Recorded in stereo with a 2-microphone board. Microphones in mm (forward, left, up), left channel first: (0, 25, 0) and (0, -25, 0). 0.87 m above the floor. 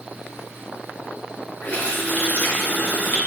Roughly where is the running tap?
Left.